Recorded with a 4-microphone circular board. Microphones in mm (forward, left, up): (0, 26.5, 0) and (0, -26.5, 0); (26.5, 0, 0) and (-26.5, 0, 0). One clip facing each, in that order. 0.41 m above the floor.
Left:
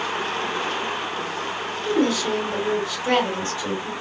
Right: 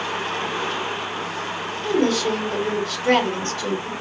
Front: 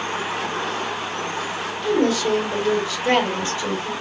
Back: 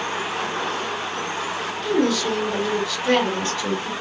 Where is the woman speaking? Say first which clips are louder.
Right 1 dB, front 2 dB; 60° right, 2.5 m.